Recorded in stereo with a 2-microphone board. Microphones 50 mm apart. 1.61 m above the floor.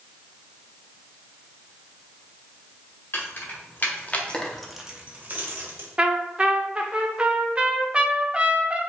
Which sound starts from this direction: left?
Keys jangling, at 3.1 s.